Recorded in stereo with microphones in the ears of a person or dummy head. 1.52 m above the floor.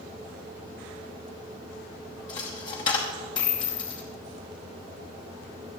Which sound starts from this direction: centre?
A dropped coin, at 2.3 s.